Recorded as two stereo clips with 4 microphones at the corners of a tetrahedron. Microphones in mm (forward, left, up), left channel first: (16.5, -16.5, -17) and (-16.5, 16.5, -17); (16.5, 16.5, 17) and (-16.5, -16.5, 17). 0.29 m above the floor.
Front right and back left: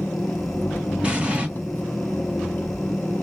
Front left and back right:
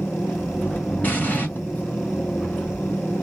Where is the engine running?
5° right, 0.8 m.